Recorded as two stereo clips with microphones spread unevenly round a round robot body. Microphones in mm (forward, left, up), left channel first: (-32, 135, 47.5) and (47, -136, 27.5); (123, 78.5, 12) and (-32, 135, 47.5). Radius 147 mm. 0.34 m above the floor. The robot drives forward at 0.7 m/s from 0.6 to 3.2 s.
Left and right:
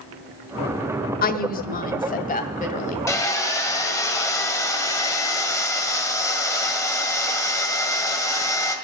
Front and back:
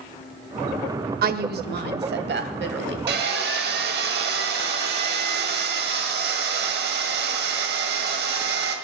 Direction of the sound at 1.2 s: 155° left.